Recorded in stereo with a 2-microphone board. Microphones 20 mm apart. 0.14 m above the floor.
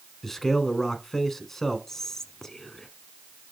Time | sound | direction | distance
0.2 | a man speaking | 15° left (ahead or behind) | 1.0 m
1.9 | whispering | 20° left (ahead or behind) | 1.1 m